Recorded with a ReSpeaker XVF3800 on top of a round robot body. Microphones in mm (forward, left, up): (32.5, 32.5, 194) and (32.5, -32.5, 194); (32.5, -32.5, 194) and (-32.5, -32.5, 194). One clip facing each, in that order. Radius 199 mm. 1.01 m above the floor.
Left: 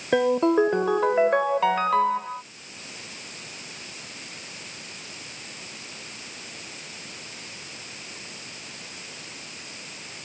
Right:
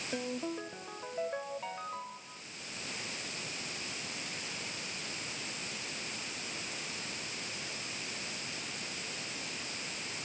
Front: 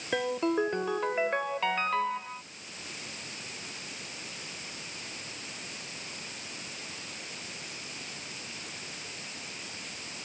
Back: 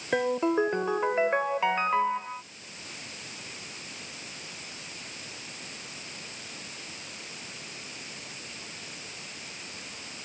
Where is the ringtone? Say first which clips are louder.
Left 19 dB, back 3 dB; 105° left.